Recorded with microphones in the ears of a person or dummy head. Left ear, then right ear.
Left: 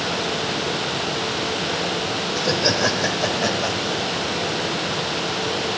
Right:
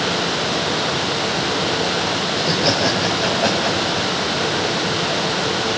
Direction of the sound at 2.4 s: 70° left (ahead or behind).